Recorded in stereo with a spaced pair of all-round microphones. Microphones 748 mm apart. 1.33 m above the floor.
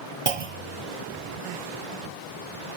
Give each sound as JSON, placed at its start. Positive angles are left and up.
{"t": 0.3, "sound": "a clunk", "side_deg": -50, "distance_m": 0.7}